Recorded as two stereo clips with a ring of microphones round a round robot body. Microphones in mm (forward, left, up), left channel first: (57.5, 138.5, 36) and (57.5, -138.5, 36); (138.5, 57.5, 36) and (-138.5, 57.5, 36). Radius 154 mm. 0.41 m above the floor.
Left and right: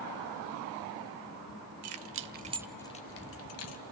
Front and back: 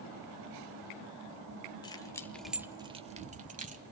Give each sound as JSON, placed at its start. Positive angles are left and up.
{"t": 1.8, "sound": "keys jangling", "azimuth_deg": -75, "distance_m": 1.3}